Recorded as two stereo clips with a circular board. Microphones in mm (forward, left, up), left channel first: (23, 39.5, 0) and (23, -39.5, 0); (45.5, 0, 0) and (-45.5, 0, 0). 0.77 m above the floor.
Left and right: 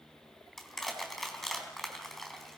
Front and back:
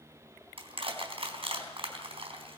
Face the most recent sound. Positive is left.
turn(degrees=180)